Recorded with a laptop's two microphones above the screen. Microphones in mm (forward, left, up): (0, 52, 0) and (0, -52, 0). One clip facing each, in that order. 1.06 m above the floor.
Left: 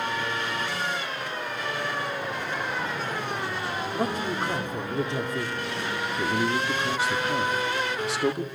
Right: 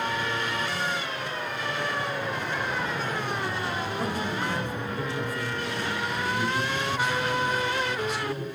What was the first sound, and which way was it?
A man speaking, 55° left (ahead or behind).